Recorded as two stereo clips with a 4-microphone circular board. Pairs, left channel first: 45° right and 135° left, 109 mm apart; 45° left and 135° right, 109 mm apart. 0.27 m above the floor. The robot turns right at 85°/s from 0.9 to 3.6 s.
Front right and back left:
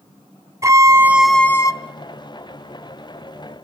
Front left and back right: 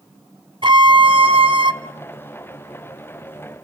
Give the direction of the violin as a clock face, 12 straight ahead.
6 o'clock.